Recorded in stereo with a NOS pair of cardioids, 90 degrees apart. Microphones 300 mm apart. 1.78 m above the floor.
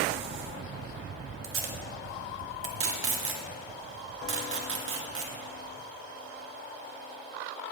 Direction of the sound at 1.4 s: 45° right.